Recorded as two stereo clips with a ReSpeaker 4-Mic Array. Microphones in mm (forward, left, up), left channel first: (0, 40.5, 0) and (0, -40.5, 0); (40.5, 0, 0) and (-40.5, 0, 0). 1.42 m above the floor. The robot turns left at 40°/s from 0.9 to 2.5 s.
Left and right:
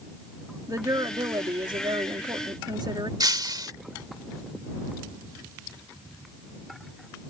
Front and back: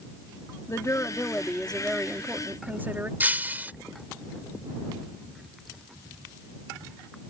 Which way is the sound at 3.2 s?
115° right.